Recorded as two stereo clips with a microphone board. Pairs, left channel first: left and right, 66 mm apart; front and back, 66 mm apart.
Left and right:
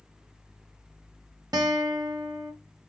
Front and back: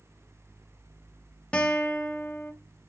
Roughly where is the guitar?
Right.